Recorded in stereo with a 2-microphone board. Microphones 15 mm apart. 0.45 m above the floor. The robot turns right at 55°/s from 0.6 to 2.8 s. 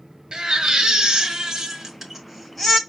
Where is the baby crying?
95° right, 1.5 m; by 2.8 s 25° left, 1.5 m.